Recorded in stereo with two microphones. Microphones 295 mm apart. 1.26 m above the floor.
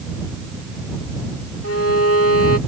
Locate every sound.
1.6 s a violin: 50° left (ahead or behind)